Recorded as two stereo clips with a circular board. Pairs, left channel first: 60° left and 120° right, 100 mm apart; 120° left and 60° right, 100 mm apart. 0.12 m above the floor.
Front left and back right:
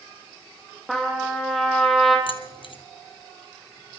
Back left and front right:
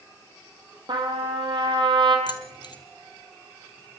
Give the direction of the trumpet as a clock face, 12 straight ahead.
1 o'clock.